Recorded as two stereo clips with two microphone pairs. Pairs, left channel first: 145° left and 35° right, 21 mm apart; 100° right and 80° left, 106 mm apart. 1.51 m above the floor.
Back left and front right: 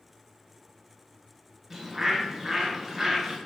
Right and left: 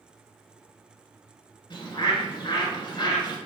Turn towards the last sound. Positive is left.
turn(degrees=-100)